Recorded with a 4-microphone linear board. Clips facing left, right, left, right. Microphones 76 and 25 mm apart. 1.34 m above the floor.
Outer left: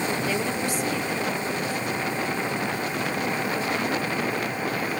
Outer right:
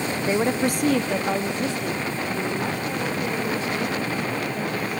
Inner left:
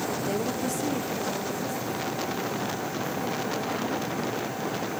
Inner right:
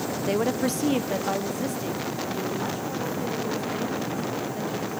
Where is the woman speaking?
20° right (ahead or behind), 1.1 m; by 5.0 s 75° right (ahead or behind), 7 m.